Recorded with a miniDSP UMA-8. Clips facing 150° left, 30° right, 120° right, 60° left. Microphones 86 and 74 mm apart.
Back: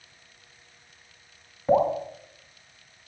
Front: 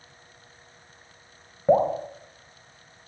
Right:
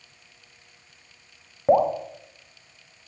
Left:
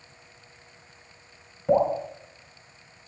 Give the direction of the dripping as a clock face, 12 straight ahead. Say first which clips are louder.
Front 1 dB, right 2 dB; 3 o'clock.